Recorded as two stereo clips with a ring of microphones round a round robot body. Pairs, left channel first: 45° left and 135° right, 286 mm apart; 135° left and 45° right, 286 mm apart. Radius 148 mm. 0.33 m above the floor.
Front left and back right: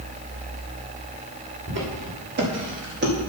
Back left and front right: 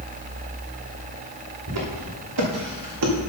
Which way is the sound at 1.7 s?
80° right.